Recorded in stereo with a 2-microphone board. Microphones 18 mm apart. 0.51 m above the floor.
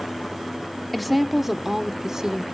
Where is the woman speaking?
Centre (ahead or behind), 0.9 m; by 2.4 s 40° right (ahead or behind), 1.6 m.